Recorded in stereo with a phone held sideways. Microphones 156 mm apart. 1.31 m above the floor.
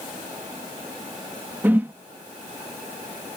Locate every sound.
1.6 s a whoosh: 15° right (ahead or behind)